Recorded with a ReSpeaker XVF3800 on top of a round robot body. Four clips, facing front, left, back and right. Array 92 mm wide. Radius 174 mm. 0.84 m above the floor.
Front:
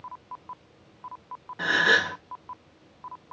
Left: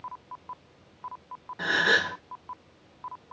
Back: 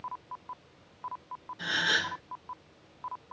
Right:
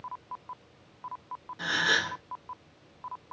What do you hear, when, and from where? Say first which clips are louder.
1.6 s a gasp: left 4 dB, front 8 dB; 35° left, 1.3 m